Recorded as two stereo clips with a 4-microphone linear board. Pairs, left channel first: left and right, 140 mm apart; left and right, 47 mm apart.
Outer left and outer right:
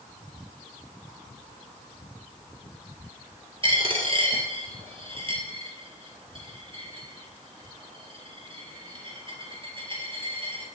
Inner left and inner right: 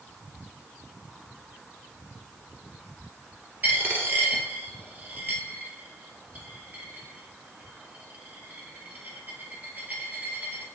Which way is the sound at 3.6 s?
40° right (ahead or behind).